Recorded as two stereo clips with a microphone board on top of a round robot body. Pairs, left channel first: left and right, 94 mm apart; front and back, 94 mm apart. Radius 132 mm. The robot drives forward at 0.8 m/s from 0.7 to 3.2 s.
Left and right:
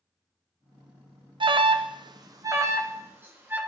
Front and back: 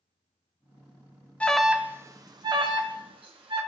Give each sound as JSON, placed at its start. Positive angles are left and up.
{"t": 1.4, "sound": "an alarm", "azimuth_deg": -75, "distance_m": 0.7}